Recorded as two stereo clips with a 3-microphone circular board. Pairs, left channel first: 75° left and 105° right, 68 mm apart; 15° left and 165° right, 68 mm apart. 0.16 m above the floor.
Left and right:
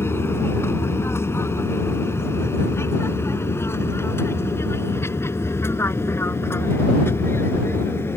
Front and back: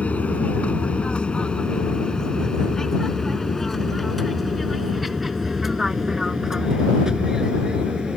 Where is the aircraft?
70° left; by 8.2 s 120° left.